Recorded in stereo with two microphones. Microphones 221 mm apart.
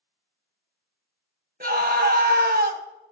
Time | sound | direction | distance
1.6 | a scream | 45° right (ahead or behind) | 1.0 m